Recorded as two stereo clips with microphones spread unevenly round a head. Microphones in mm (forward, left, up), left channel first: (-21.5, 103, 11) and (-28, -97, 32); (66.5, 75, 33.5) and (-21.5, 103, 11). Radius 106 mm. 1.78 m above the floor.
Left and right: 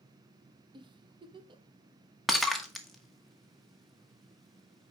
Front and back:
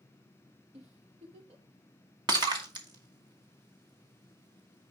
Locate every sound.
0.7 s a giggle: 155° right, 0.8 m
2.3 s breaking glass: 175° right, 1.2 m